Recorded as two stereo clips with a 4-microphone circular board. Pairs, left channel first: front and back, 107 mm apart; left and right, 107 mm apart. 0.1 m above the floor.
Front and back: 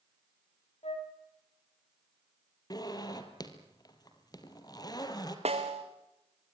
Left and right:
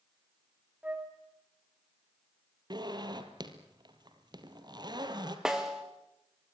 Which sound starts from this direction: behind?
A snare drum, at 5.5 s.